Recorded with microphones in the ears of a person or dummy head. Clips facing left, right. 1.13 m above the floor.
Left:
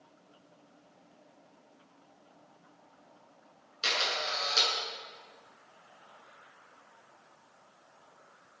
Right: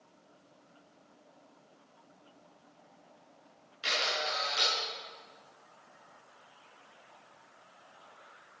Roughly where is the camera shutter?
Left.